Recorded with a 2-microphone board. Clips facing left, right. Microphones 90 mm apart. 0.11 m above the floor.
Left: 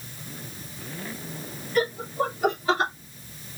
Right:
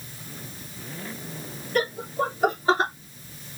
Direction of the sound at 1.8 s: 55° right (ahead or behind).